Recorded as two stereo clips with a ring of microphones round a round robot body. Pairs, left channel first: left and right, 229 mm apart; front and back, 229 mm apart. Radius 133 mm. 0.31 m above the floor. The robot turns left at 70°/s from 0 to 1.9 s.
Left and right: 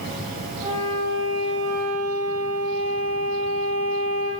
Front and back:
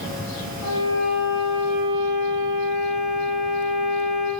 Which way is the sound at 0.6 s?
15° right.